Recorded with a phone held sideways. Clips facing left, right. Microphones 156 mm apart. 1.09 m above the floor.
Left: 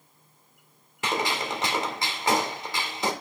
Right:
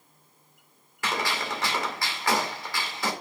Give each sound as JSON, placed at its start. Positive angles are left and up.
{"t": 1.0, "sound": "a gunshot", "side_deg": 20, "distance_m": 2.0}